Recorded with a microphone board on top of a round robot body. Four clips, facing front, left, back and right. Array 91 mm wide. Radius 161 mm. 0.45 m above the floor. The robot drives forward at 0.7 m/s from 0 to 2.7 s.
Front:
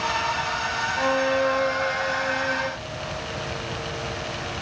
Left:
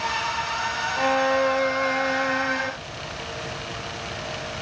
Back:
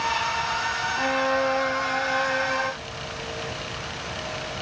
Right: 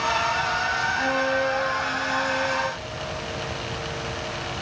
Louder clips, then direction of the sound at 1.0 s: Left 6 dB, front 2 dB; 85° left.